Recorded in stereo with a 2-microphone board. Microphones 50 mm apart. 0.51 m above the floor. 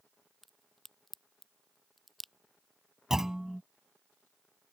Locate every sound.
0.4 s a crack: centre (ahead or behind)
3.1 s a clunk: 10° right (ahead or behind)